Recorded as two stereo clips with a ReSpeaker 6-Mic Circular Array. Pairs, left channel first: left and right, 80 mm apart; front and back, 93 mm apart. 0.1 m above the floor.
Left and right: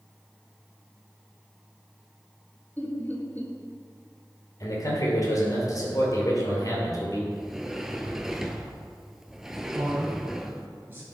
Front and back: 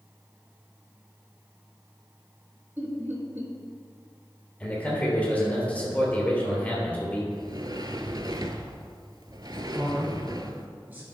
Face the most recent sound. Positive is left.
turn(degrees=-125)